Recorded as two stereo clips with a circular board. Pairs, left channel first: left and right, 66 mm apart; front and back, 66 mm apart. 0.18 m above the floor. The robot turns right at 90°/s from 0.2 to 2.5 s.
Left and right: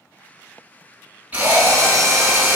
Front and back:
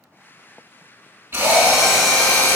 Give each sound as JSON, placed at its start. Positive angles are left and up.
{"t": 1.3, "sound": "a drill", "azimuth_deg": -145, "distance_m": 1.2}